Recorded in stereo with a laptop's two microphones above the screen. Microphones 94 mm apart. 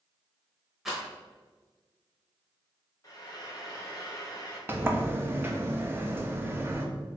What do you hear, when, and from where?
0.8 s a rattle: 5° right (ahead or behind), 1.0 m
3.0 s frying: 45° left (ahead or behind), 0.9 m
4.7 s a sliding door: 25° right (ahead or behind), 0.6 m